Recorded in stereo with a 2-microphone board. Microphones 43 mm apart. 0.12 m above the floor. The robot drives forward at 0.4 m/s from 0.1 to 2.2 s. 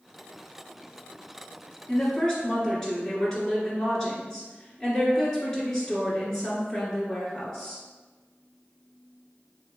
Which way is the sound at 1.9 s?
15° left (ahead or behind).